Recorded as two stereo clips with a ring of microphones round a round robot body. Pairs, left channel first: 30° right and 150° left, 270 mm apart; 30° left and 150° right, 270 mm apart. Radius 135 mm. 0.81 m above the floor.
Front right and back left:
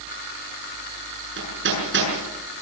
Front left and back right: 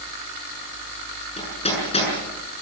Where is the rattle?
No rattle in this recording.